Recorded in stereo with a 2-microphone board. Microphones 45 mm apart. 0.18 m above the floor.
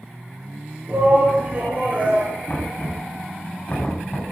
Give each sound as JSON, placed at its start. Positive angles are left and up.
{"t": 0.9, "sound": "a shout", "side_deg": -40, "distance_m": 4.0}
{"t": 2.5, "sound": "knocking", "side_deg": 35, "distance_m": 8.5}